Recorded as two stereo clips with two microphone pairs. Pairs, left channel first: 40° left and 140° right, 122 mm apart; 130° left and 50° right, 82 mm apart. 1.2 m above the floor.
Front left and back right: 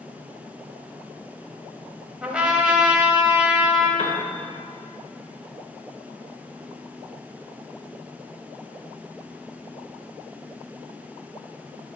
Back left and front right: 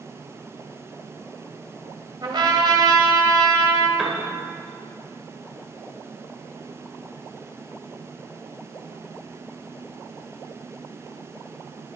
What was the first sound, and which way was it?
A trumpet, 60° right.